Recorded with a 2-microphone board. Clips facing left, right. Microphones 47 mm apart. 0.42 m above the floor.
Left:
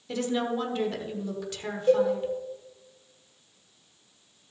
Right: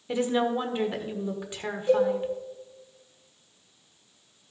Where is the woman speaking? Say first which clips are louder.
Right 3 dB; 20° right (ahead or behind), 1.3 m.